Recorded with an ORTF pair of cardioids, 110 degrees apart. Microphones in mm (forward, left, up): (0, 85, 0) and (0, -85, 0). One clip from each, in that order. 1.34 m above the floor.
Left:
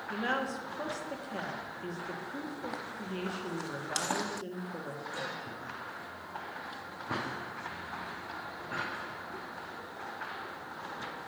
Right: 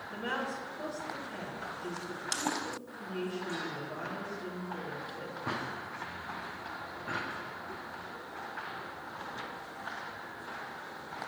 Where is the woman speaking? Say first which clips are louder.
Left 3 dB; 45° left, 2.0 m.